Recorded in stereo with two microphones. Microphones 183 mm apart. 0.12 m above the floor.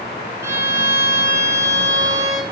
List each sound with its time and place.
0.4 s a violin: 15° right (ahead or behind), 0.6 m